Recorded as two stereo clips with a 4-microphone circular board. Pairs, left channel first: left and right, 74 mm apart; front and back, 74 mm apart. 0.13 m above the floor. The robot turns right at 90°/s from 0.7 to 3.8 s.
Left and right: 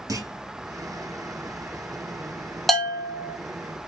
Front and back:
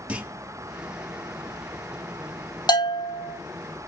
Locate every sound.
0.1 s a clunk: 115° right, 1.2 m
2.7 s a bell: straight ahead, 0.9 m; by 3.4 s 65° left, 0.9 m